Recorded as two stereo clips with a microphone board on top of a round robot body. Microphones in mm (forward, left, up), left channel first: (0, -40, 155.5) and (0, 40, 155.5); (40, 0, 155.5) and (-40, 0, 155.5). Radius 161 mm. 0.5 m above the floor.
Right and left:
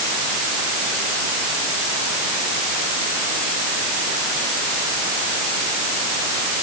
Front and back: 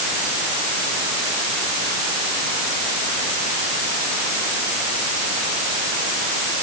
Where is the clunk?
No clunk in this recording.